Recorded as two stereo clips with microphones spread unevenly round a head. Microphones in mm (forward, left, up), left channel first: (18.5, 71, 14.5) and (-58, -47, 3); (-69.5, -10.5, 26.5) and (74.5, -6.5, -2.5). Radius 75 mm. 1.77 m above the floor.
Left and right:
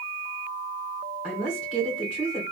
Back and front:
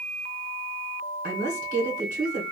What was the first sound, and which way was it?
A woman speaking, 35° right.